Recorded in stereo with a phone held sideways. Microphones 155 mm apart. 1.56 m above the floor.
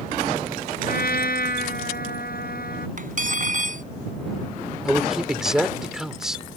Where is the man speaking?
5° right (ahead or behind).